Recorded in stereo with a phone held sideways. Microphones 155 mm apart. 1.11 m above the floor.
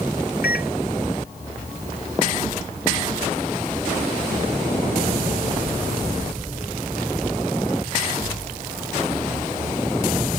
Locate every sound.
0.4 s a microwave: 80° left